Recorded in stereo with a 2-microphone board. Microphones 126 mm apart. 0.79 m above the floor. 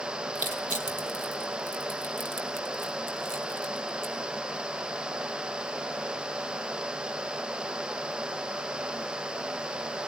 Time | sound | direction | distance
0.3 | crushing | 90° right | 1.7 m